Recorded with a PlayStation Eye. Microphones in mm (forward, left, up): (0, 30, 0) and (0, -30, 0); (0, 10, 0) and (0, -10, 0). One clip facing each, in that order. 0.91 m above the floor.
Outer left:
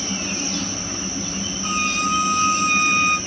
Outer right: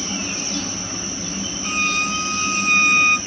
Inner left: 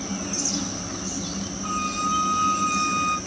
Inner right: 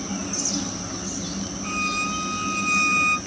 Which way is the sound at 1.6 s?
45° right (ahead or behind).